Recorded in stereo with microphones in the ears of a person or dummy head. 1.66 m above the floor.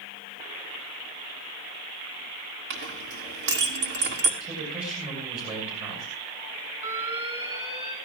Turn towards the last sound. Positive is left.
turn(degrees=-25)  # may be behind; listen again after turning